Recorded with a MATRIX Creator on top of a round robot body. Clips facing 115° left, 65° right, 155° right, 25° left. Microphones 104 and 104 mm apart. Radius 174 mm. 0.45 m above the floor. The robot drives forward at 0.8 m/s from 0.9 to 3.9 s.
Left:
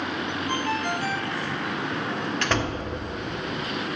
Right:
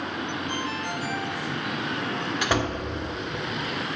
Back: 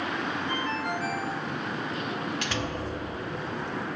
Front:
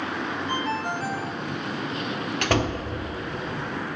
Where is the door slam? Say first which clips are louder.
Right 2 dB, front 7 dB; 10° left, 1.2 m; by 2.8 s 15° left, 0.9 m.